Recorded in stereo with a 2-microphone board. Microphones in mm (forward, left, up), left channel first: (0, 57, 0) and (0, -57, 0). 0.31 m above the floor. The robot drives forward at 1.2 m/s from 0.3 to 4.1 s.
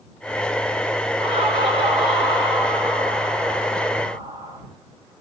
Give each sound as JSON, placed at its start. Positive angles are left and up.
{"t": 1.2, "sound": "laughter", "side_deg": -55, "distance_m": 5.5}